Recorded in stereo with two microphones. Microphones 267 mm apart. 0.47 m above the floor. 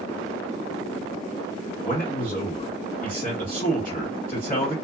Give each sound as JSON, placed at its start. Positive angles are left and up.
{"t": 1.8, "sound": "a man speaking", "side_deg": 30, "distance_m": 1.5}